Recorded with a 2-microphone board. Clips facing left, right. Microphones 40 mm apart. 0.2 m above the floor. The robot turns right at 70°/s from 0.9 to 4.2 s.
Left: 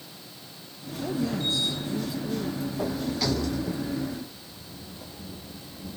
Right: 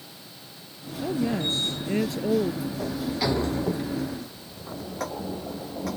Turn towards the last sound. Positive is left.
turn(degrees=-95)